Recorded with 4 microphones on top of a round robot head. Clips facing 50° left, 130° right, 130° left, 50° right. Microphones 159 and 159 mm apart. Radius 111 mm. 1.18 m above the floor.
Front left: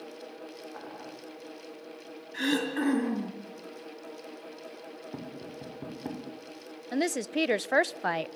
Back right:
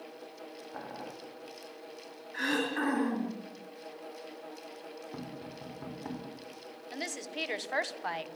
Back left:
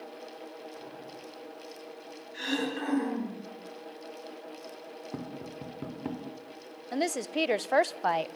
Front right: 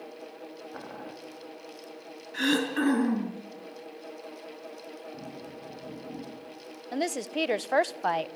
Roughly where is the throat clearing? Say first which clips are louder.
Front left 4 dB, front right 6 dB; ahead.